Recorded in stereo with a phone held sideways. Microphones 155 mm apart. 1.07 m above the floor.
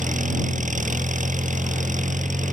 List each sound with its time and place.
0.0 s an engine running: 60° right (ahead or behind)